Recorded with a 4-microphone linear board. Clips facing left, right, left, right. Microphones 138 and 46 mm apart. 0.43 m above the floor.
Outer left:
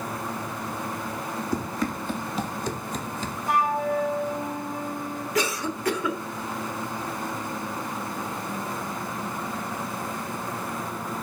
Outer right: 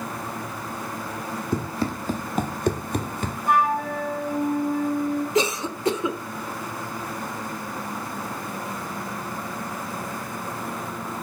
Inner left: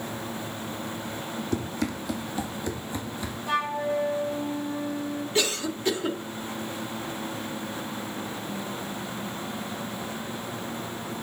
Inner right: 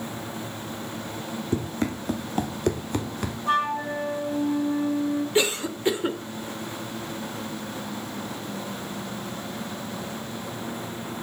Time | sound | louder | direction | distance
1.5 | running footsteps | outer right 3 dB, inner right 3 dB | 25° right (ahead or behind) | 1.5 m
3.5 | a flute | outer right 2 dB, inner right 2 dB | 60° right (ahead or behind) | 3 m
5.3 | a cough | outer right 3 dB, inner right 3 dB | 20° right (ahead or behind) | 1.0 m